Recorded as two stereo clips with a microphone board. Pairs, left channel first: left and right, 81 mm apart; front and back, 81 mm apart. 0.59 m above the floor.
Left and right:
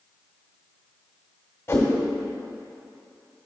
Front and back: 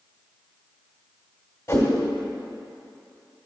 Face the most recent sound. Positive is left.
turn(degrees=40)